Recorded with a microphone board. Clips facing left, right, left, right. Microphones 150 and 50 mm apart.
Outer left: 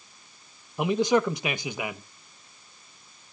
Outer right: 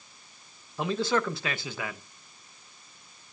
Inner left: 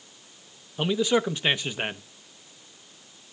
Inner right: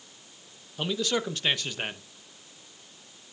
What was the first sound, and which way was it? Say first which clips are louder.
A man speaking: outer left 5 dB, inner left 5 dB; 15° left (ahead or behind).